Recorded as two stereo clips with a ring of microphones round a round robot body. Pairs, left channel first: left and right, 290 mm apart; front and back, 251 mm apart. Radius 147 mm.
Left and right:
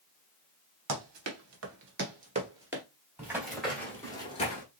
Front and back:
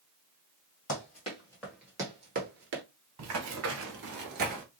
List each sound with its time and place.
0.9 s running footsteps: 60° right, 1.7 m; by 2.8 s 175° right, 1.2 m
3.2 s running footsteps: 170° right, 1.5 m; by 4.6 s 140° left, 1.1 m